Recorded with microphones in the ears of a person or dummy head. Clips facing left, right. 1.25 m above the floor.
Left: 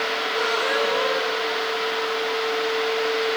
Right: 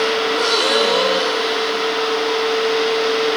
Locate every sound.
0.3 s a gasp: 65° right (ahead or behind)